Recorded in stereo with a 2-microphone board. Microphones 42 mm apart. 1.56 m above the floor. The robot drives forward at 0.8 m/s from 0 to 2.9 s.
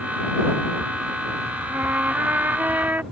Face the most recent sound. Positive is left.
turn(degrees=-50)  # may be behind; listen again after turning